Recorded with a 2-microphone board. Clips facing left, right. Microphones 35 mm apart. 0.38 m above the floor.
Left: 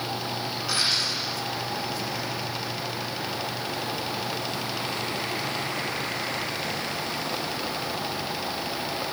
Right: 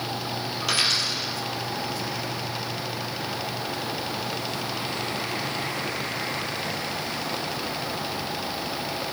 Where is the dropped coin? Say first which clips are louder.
Right 2 dB; 80° right, 2.5 m.